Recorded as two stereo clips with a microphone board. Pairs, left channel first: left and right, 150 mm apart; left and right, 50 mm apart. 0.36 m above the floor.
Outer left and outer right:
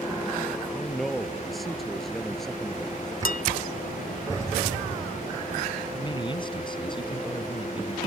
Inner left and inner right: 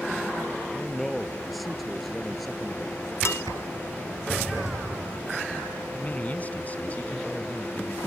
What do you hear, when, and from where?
0.7 s a man speaking: centre (ahead or behind); by 3.1 s 5° left (ahead or behind)
3.2 s dishes clattering: 70° left (ahead or behind)
5.9 s a man speaking: 30° left (ahead or behind)